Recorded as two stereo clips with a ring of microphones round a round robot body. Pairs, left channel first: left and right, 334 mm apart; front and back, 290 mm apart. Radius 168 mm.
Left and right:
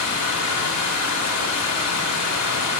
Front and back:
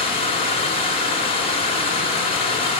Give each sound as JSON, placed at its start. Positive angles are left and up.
{"t": 0.0, "sound": "running water", "azimuth_deg": 70, "distance_m": 1.2}